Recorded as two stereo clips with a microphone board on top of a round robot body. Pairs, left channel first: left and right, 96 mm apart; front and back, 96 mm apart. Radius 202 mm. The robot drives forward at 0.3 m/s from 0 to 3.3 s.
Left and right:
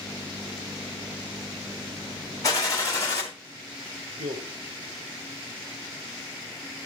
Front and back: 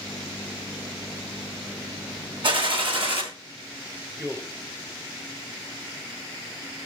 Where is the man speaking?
110° right, 2.5 m.